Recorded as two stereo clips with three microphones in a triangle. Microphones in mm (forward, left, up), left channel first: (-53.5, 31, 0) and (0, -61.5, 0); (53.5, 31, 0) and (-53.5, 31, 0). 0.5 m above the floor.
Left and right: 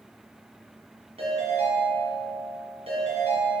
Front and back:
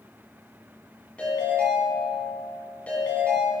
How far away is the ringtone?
About 3.5 m.